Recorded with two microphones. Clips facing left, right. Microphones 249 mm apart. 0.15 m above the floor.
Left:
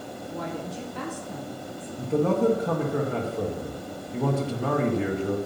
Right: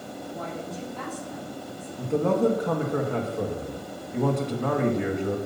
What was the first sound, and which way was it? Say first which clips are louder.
A woman speaking: left 3 dB; 75° left (ahead or behind).